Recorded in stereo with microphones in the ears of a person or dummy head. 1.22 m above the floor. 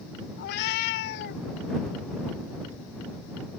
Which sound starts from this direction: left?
A cat meowing, at 0.4 s.